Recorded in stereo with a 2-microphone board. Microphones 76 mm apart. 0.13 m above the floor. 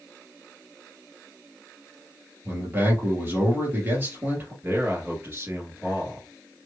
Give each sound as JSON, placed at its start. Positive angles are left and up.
{"t": 2.5, "sound": "a man speaking", "side_deg": -30, "distance_m": 2.5}
{"t": 4.6, "sound": "a man speaking", "side_deg": -30, "distance_m": 1.8}